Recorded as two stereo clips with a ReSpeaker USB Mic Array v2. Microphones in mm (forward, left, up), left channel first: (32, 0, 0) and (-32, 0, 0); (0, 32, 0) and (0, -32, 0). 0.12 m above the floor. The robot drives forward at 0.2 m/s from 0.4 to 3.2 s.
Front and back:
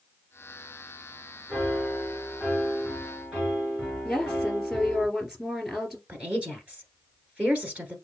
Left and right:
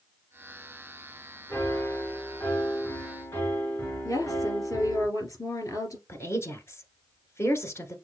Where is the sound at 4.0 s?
95° left, 2.5 m.